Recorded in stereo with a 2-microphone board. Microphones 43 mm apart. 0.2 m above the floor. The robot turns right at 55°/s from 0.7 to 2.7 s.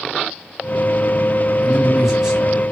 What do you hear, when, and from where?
1.6 s a man speaking: 5° left (ahead or behind), 1.2 m; by 2.6 s 20° right (ahead or behind), 1.2 m